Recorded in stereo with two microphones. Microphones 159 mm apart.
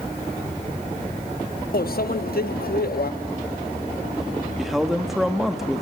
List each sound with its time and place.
1.7 s a microwave: 70° left (ahead or behind), 1.0 m
4.6 s a man speaking: centre (ahead or behind), 1.6 m